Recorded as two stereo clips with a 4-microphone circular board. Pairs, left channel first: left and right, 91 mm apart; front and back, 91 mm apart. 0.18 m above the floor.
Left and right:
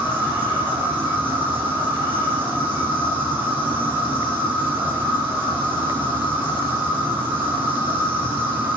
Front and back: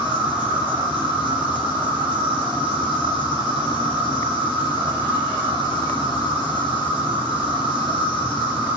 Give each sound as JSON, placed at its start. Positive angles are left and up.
{"t": 0.0, "sound": "an insect", "azimuth_deg": -20, "distance_m": 4.5}